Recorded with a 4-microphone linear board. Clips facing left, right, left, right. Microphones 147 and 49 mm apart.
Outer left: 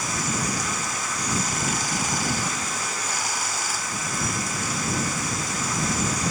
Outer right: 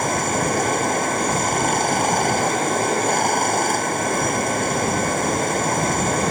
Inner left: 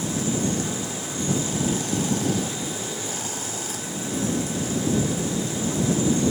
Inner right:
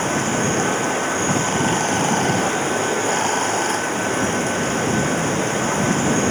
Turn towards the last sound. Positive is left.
turn(degrees=-55)  # may be behind; listen again after turning